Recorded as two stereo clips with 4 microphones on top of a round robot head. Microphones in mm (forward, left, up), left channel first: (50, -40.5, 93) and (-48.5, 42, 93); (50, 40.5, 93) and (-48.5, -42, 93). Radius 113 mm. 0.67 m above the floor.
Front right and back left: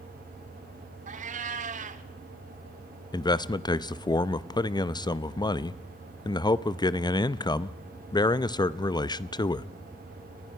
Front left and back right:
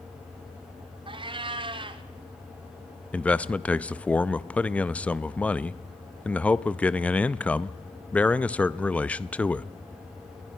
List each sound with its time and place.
1.1 s a cat meowing: 165° left, 0.9 m
3.1 s a man speaking: 30° right, 0.7 m